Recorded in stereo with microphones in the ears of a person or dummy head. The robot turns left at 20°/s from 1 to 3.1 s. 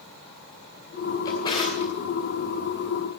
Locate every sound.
1.2 s a drawer: 20° left (ahead or behind), 3.5 m; by 1.9 s 35° left (ahead or behind), 3.5 m